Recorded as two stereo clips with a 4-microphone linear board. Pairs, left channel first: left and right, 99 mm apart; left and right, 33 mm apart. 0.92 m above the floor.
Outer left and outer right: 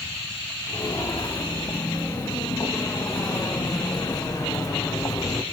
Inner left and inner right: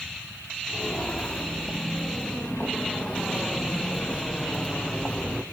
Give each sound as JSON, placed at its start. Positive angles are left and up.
{"t": 0.7, "sound": "footsteps", "side_deg": 40, "distance_m": 5.5}